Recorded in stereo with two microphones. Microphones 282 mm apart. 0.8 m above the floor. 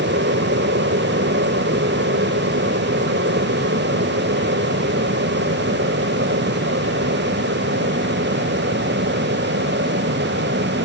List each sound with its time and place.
0.0 s an aircraft: 45° right (ahead or behind)